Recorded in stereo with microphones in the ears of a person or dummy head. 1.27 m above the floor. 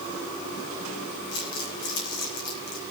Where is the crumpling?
75° left (ahead or behind), 6 m.